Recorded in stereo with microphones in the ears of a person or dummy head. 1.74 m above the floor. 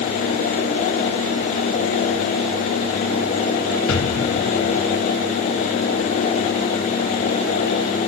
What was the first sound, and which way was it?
An explosion, 70° left (ahead or behind).